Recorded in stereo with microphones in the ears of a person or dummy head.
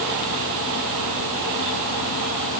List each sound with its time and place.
Only background noise.